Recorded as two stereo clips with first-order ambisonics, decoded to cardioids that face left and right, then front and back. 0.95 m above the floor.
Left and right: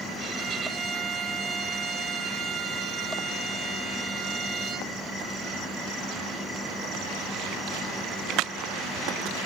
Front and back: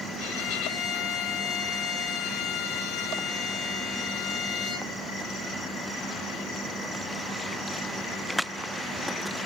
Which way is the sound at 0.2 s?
30° right.